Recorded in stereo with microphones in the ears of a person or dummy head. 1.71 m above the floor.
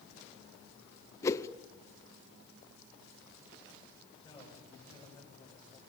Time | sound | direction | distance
1.2 | a whoosh | 15° left (ahead or behind) | 0.8 m
4.0 | a man speaking | 15° left (ahead or behind) | 8 m